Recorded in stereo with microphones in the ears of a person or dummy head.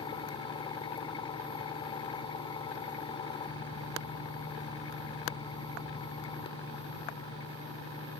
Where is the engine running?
30° left (ahead or behind).